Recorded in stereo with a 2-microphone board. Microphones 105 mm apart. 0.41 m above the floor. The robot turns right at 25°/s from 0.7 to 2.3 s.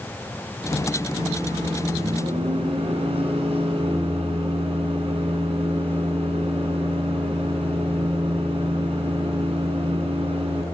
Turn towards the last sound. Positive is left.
turn(degrees=-70)  # may be behind; listen again after turning